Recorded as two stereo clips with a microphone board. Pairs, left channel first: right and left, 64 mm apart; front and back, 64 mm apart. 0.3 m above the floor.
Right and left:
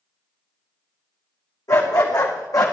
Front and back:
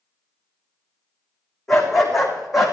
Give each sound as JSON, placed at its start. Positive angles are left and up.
{"t": 1.7, "sound": "a dog barking", "azimuth_deg": -85, "distance_m": 4.0}